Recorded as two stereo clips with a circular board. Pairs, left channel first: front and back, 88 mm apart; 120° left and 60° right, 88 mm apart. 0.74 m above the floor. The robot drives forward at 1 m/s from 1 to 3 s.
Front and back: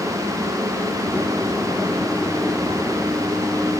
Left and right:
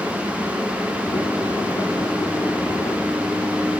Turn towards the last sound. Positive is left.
No sound to turn to.